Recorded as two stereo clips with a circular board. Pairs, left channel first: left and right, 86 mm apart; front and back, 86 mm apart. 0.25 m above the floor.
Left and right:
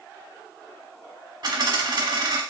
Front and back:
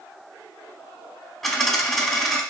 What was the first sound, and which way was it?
A dropped coin, 85° right.